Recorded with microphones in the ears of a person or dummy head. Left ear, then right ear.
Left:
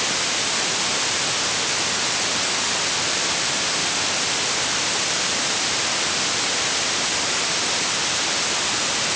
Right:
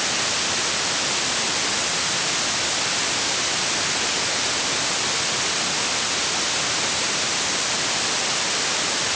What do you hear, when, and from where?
Only background noise.